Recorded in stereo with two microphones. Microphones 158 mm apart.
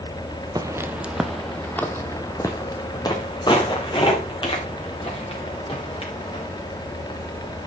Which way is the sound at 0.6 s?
25° right (ahead or behind).